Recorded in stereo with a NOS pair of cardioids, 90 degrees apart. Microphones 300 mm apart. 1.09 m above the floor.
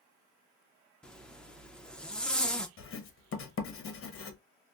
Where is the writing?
45° left, 0.7 m.